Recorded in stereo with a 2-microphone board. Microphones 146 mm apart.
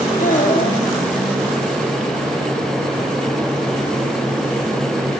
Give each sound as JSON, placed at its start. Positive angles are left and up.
{"t": 0.2, "sound": "a child speaking", "side_deg": 65, "distance_m": 1.7}